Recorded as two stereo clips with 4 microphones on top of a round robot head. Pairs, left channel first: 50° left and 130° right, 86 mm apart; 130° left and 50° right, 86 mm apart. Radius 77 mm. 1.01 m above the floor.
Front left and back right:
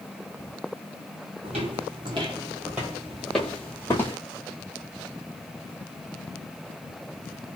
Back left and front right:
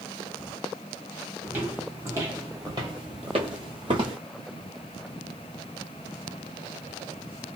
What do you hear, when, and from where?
1.4 s footsteps: 120° right, 1.3 m; by 4.2 s 10° right, 1.3 m